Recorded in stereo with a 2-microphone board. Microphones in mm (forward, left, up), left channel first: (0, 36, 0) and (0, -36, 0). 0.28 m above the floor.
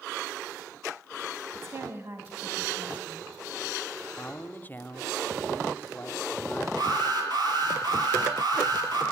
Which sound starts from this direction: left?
A man speaking, at 4.2 s.